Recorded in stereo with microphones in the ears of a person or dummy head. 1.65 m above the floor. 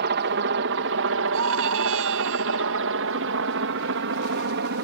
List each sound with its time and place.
0.0 s a helicopter: 55° right (ahead or behind)
1.3 s a scream: 70° right (ahead or behind)